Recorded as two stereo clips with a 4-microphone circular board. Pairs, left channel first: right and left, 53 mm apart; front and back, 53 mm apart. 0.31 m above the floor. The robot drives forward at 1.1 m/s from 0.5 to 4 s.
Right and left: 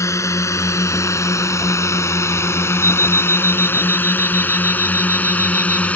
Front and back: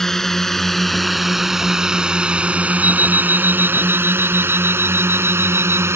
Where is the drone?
80° right; by 6.0 s 150° right.